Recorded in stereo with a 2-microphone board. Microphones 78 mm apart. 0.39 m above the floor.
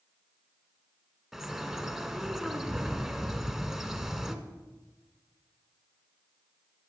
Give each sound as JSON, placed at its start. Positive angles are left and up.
{"t": 1.3, "sound": "a bird", "side_deg": -5, "distance_m": 0.8}